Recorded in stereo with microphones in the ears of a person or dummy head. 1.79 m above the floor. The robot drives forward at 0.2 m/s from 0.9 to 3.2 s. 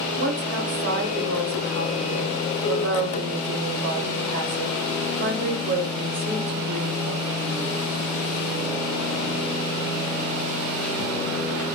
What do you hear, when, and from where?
0.2 s a woman speaking: 65° right (ahead or behind), 0.9 m; by 7.8 s 55° right (ahead or behind), 0.9 m